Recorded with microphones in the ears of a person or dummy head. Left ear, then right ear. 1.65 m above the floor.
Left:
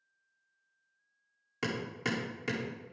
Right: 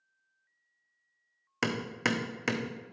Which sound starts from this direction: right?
Hammering, at 1.6 s.